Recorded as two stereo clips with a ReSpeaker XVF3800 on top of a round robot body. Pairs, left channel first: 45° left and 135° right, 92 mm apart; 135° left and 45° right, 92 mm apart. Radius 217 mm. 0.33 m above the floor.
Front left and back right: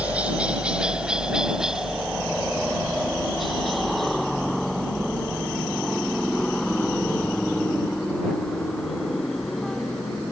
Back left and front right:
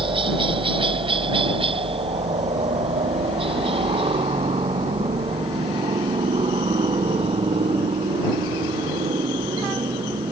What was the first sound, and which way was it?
A helicopter, 60° right.